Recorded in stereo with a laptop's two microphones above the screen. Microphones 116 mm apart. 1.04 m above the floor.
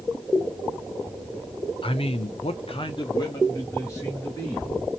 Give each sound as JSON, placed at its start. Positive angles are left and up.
{"t": 1.8, "sound": "a man speaking", "side_deg": 50, "distance_m": 0.6}